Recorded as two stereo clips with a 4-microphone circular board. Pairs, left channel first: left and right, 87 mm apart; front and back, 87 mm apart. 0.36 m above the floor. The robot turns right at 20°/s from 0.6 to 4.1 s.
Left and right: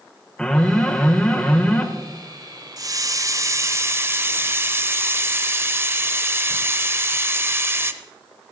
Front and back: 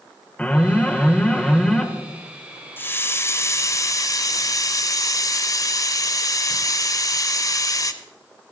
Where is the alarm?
35° left, 1.1 m; by 1.9 s 65° left, 1.1 m.